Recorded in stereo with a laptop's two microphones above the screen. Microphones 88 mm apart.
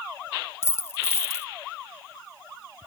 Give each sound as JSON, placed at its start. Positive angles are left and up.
{"t": 0.6, "sound": "a dropped coin", "side_deg": 30}